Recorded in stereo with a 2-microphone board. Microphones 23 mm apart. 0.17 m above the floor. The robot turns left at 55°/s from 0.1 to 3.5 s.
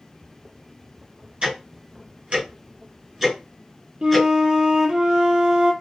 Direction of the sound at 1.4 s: 45° right (ahead or behind).